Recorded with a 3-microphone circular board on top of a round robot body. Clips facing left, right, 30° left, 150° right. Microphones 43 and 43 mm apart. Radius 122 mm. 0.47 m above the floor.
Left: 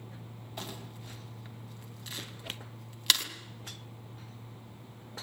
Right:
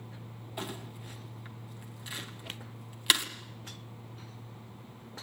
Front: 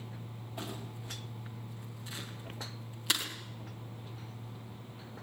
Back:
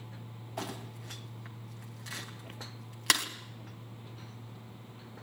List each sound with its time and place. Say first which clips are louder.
0.6 s crumpling: right 3 dB, back 3 dB; 165° right, 2.5 m